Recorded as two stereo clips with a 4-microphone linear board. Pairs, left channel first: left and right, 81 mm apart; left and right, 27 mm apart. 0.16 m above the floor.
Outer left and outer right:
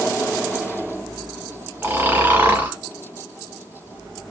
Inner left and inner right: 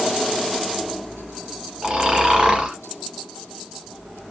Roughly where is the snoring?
Right.